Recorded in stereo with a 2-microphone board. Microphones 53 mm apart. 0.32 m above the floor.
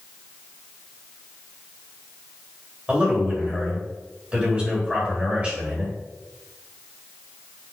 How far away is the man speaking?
About 1.6 m.